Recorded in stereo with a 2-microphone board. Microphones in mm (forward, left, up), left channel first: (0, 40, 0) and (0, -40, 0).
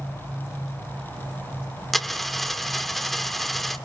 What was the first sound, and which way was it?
A dropped coin, centre (ahead or behind).